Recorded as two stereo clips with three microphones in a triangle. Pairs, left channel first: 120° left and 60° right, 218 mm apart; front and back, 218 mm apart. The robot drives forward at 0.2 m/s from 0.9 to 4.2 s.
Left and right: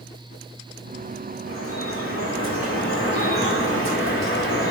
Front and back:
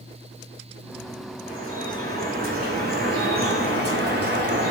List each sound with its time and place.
1.5 s dripping: 130° left, 1.6 m; by 4.7 s 140° left, 2 m